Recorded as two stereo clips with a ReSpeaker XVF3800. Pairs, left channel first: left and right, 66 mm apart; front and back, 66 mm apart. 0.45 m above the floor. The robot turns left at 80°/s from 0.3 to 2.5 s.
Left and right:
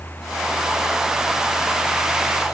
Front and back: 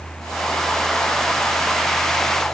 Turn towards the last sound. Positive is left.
No sound to turn to.